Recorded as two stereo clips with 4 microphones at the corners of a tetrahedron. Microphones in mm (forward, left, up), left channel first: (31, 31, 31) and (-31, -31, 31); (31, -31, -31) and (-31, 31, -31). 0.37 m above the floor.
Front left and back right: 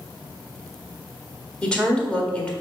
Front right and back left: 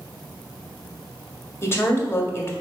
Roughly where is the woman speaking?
Ahead right.